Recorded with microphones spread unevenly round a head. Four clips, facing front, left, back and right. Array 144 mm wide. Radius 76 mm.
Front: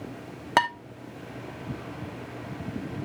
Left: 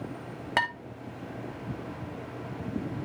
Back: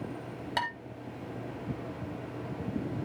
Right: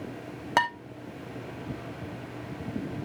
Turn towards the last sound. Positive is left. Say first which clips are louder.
# right 4 dB, front 10 dB
turn(degrees=-15)